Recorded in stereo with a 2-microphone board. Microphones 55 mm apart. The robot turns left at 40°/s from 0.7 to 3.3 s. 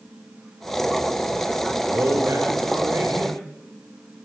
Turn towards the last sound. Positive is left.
turn(degrees=-130)